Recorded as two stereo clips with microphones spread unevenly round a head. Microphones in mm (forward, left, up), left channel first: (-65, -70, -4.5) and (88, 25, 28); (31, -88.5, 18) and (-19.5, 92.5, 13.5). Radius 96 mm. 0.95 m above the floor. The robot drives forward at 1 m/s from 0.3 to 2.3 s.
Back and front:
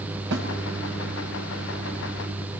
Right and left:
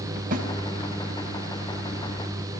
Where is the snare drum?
60° left, 7.5 m.